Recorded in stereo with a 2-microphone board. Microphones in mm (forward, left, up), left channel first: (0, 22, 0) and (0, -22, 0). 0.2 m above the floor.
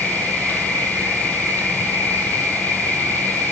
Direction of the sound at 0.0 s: 45° left (ahead or behind).